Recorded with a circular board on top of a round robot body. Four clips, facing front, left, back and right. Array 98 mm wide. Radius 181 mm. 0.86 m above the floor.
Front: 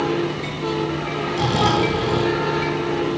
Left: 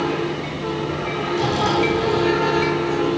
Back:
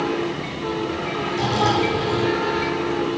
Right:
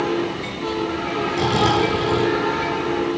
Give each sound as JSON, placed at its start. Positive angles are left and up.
{"t": 1.3, "sound": "snoring", "azimuth_deg": -45, "distance_m": 6.5}